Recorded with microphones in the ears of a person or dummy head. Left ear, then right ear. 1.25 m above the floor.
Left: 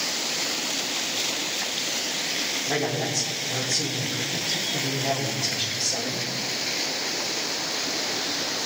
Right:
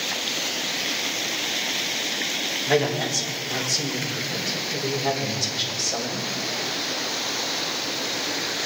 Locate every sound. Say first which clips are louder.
2.7 s a man speaking: right 4 dB; 75° right (ahead or behind), 3.5 m